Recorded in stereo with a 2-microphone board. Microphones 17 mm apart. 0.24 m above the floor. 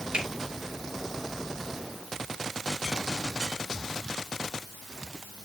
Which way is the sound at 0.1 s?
60° right (ahead or behind).